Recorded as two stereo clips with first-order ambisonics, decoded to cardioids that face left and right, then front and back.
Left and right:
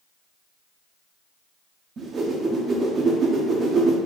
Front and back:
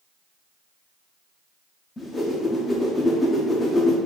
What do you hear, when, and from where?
2.0 s a whoosh: 65° right, 0.6 m